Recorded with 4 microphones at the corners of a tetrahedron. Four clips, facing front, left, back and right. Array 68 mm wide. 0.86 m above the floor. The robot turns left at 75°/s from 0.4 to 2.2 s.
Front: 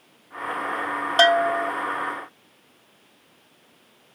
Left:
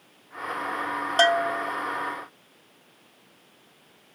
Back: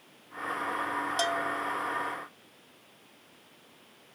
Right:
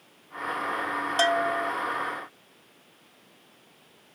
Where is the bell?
25° left; by 1.7 s 15° right.